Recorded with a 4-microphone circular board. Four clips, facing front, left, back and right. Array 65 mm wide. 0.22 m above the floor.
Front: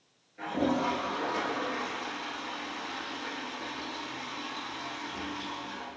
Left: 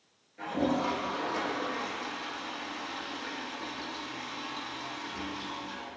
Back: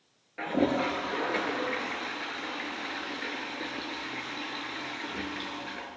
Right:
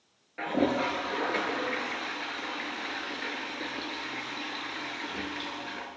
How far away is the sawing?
No sawing in this recording.